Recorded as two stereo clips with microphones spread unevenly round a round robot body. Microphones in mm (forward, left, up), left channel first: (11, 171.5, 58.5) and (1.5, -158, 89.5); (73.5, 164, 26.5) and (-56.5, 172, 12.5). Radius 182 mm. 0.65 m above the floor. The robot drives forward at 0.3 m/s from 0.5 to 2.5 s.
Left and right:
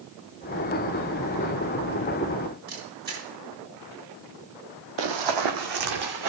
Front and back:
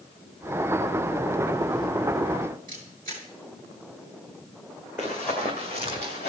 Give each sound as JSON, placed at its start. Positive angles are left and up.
{"t": 2.7, "sound": "a camera shutter", "azimuth_deg": -155, "distance_m": 5.5}
{"t": 5.0, "sound": "running footsteps", "azimuth_deg": -95, "distance_m": 1.3}